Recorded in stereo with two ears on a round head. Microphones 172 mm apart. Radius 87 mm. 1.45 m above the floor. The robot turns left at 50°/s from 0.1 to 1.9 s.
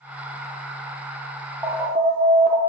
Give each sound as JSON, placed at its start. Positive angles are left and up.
{"t": 1.6, "sound": "an alarm", "side_deg": -15, "distance_m": 1.2}